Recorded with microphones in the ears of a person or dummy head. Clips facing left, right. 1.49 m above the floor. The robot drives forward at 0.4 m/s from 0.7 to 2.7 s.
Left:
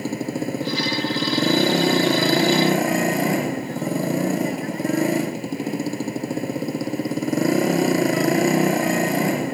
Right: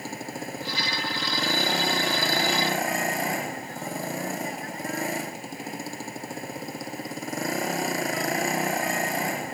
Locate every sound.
0.0 s a motorcycle: 70° left (ahead or behind)